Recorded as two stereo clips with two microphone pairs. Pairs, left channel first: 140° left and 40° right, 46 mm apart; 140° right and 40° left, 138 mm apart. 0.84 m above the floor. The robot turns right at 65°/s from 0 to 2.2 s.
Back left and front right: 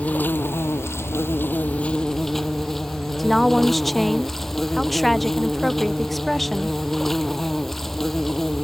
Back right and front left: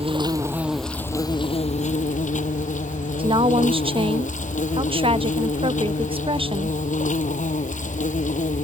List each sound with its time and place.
0.0 s an insect: 80° left; by 8.6 s 135° right
3.2 s a woman speaking: 55° left